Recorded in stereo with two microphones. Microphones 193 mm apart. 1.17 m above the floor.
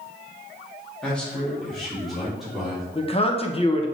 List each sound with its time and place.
1.0 s a man speaking: 5° left (ahead or behind), 2.5 m; by 2.9 s centre (ahead or behind), 4 m
3.0 s a man speaking: 30° left (ahead or behind), 1.0 m